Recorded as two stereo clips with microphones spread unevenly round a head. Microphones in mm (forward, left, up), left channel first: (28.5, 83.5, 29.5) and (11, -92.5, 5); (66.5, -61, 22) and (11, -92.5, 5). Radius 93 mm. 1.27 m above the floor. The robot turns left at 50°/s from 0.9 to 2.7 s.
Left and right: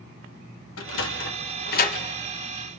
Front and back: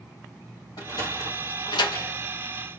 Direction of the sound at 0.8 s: 90° left.